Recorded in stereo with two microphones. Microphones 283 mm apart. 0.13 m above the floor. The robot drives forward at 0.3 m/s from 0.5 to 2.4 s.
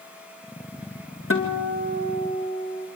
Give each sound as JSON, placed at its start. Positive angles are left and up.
{"t": 1.3, "sound": "a guitar", "side_deg": 50, "distance_m": 3.5}